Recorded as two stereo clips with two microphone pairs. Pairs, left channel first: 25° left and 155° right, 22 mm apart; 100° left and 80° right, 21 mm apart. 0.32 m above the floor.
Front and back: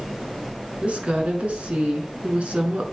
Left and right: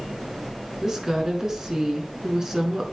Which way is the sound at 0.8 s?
135° right.